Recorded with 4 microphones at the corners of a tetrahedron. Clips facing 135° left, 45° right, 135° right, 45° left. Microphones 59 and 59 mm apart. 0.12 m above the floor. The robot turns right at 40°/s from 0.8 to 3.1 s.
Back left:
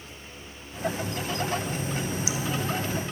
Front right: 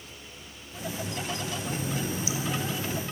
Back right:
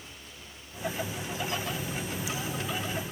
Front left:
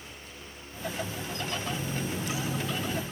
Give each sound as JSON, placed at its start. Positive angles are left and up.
{"t": 1.6, "sound": "a running tap", "azimuth_deg": -20, "distance_m": 3.0}